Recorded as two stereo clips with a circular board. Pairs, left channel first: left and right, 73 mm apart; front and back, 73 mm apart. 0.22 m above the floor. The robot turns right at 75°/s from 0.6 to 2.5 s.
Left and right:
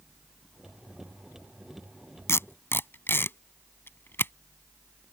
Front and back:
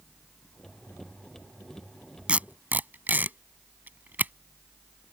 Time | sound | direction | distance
2.3 | tape being pulled | 110° left | ?